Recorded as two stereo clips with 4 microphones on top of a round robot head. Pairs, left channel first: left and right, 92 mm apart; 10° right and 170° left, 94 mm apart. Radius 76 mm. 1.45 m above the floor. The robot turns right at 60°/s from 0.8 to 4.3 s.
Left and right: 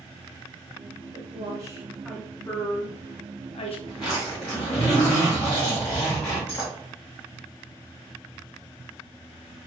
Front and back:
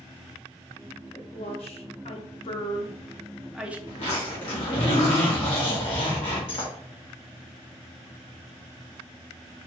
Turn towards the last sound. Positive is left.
turn(degrees=10)